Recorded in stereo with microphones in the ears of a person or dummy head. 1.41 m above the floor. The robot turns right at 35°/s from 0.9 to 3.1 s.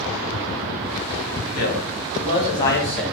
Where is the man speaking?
120° left, 1.3 m; by 3.0 s 170° left, 1.3 m.